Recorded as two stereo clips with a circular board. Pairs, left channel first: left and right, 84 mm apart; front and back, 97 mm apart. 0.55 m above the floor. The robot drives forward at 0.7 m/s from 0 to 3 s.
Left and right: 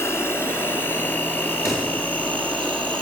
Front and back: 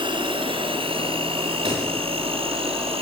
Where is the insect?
145° left, 1.7 m; by 3.0 s 165° left, 3.5 m.